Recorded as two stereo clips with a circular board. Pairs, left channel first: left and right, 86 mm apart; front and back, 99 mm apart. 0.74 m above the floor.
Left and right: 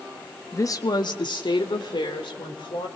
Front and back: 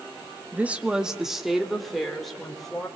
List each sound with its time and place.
0.5 s a woman speaking: 120° left, 1.0 m; by 2.9 s 85° left, 3.5 m